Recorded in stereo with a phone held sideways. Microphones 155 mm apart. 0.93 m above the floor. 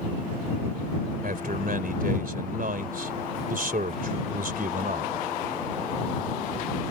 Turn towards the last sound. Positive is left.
turn(degrees=-70)  # may be behind; listen again after turning